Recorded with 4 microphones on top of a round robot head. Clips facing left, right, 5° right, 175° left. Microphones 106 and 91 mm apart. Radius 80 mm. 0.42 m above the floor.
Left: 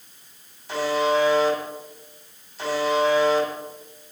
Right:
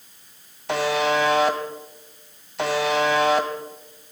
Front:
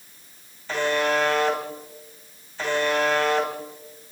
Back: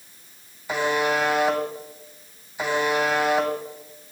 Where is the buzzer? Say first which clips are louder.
Even, even; 105° right, 2.5 m.